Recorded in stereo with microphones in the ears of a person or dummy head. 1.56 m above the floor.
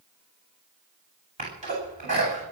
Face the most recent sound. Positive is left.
turn(degrees=-35)  # may be behind; listen again after turning